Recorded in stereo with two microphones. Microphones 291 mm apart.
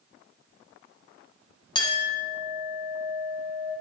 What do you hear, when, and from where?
1.8 s a clink: 15° left (ahead or behind), 1.7 m